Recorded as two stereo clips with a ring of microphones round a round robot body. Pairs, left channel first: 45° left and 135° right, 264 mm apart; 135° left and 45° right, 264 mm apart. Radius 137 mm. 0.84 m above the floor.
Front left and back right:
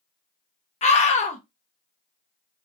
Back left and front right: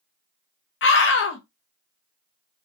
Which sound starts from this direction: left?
A scream, at 0.8 s.